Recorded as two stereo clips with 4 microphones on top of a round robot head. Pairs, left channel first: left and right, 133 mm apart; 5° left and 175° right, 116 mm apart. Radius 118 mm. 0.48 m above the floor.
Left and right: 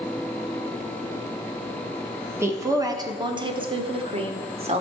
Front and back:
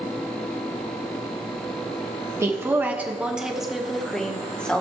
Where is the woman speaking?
140° right, 1.2 m; by 4.8 s 70° right, 1.8 m.